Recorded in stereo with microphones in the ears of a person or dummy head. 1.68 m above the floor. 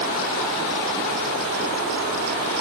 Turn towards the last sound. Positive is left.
No sound to turn to.